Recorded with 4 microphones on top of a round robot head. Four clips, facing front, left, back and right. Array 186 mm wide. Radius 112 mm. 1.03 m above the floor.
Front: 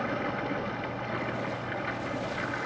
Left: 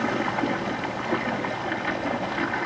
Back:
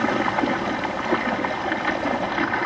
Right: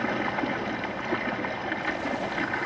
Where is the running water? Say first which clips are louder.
Left 3 dB, back 10 dB; 175° left, 1.2 m.